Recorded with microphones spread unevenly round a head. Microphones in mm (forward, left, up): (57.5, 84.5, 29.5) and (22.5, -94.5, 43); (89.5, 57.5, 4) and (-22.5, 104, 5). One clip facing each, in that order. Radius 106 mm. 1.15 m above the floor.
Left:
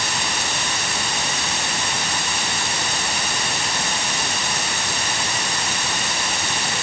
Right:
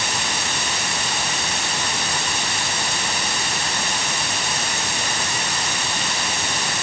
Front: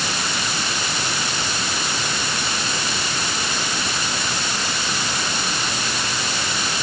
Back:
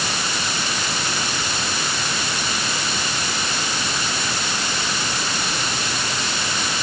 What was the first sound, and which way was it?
Only background noise.